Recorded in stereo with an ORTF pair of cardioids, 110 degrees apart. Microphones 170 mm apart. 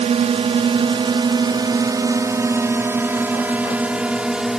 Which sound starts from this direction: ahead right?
A drone, at 0.0 s.